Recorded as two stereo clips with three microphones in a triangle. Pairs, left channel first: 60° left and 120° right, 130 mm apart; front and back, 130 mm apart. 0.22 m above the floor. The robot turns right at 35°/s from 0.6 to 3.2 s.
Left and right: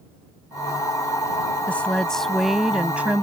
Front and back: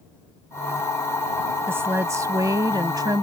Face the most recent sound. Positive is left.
turn(degrees=180)